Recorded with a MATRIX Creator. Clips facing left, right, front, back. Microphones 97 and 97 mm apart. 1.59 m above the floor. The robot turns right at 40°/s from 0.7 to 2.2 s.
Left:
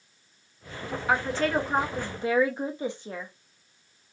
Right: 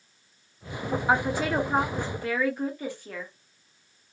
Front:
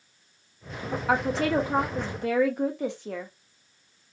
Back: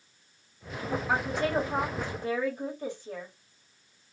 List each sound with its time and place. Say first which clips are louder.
1.1 s a woman speaking: even, front 5 dB; 20° right, 0.7 m; by 3.3 s 25° left, 0.7 m